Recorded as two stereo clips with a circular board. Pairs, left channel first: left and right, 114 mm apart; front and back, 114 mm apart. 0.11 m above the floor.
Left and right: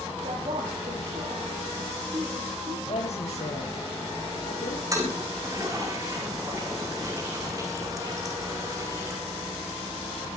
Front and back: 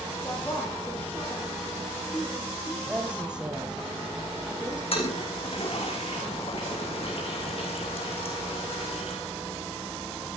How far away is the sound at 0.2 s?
About 5.5 m.